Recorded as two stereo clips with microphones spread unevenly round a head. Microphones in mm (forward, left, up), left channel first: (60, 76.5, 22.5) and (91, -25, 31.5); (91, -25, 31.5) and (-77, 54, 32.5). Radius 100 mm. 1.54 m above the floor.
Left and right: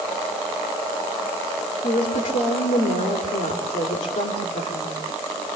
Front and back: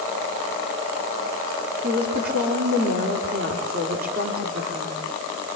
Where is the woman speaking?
115° left, 4 m.